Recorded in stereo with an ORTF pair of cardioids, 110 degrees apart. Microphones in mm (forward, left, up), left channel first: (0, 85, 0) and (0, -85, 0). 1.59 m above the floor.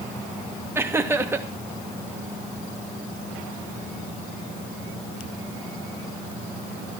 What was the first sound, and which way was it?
Laughter, 15° right.